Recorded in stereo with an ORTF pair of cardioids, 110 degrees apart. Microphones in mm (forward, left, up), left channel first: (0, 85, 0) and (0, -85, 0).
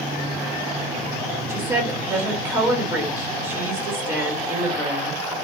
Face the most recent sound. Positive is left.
turn(degrees=-15)